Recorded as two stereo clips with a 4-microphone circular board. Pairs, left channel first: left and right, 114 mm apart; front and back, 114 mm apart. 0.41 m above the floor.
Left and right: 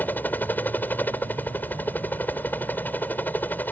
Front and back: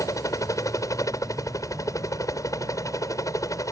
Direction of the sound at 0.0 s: 30° left.